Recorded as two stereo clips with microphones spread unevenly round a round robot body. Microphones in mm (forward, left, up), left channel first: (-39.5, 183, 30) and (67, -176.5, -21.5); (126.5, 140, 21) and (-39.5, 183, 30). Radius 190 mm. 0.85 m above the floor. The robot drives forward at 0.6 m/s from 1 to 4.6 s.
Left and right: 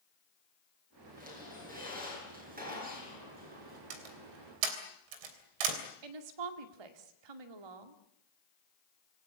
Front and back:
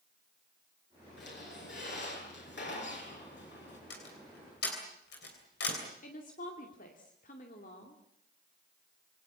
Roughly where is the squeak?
Ahead.